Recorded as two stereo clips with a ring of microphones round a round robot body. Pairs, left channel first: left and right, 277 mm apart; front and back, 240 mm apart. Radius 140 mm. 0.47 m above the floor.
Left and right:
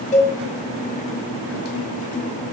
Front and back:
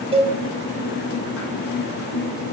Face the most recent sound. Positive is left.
turn(degrees=135)